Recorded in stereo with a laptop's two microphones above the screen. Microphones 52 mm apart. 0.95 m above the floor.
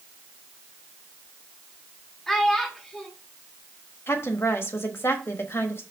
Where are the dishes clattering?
No dishes clattering in this recording.